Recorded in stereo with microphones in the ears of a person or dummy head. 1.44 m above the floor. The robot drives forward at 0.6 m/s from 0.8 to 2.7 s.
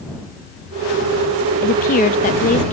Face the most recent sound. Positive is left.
turn(degrees=30)  # may be behind; listen again after turning